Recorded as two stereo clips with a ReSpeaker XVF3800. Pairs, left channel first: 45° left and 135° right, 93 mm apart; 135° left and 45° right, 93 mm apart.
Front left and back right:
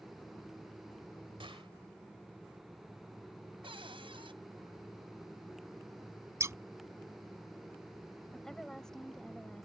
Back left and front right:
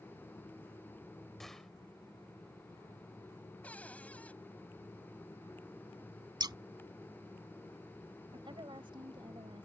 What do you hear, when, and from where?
1.4 s a gunshot: 140° right
3.6 s a cupboard door: 150° right
6.4 s scissors: 80° right
8.3 s a woman speaking: 40° right